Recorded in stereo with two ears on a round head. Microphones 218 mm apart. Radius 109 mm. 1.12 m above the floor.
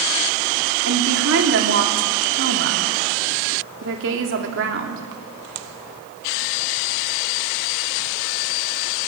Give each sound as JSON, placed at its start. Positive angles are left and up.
{"t": 0.8, "sound": "a woman speaking", "side_deg": -55, "distance_m": 3.0}